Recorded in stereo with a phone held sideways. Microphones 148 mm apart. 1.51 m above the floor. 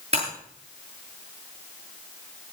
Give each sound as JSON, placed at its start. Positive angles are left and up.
{"t": 0.1, "sound": "breaking glass", "side_deg": -40, "distance_m": 9.0}